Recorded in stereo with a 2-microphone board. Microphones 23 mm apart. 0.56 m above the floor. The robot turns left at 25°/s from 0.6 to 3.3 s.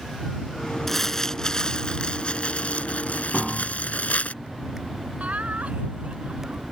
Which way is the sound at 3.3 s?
Centre (ahead or behind).